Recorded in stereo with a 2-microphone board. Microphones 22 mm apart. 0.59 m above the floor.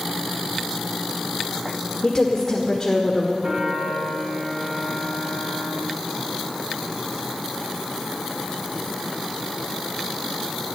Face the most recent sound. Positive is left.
turn(degrees=-50)  # may be behind; listen again after turning